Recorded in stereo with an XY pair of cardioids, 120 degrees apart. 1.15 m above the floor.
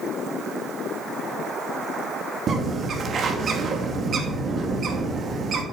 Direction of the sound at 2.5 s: 45° right.